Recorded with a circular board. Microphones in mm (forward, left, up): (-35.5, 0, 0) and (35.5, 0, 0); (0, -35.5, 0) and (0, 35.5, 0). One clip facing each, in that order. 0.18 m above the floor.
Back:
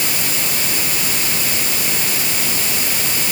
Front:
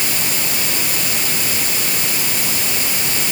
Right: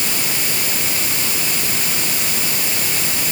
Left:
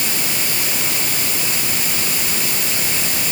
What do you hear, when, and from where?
Only background noise.